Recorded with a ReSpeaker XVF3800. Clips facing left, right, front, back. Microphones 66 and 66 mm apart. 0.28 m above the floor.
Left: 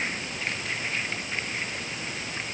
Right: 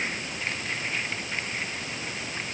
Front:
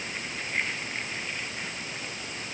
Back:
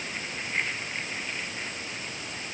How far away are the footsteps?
I don't hear footsteps.